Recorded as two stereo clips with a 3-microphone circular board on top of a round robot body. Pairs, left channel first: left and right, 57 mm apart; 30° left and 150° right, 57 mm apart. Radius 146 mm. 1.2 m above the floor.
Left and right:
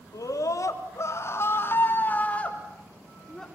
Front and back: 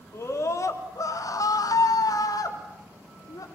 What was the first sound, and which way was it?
A scream, 70° left.